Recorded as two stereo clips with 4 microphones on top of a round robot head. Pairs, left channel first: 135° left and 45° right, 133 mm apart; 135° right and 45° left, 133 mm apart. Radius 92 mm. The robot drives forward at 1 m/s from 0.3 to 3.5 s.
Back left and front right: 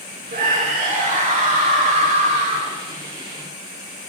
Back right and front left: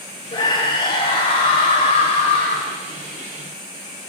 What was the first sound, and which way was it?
A scream, 75° right.